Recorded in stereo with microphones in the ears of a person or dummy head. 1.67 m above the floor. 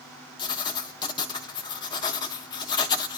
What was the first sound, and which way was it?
Writing, 25° left (ahead or behind).